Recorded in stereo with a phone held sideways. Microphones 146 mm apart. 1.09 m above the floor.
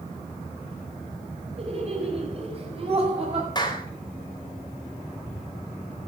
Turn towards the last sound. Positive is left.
turn(degrees=30)  # may be behind; listen again after turning